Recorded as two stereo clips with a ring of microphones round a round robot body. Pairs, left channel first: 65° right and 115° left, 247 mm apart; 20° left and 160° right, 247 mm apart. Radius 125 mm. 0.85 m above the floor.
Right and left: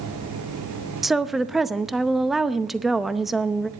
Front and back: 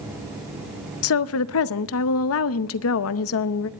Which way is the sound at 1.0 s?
25° left.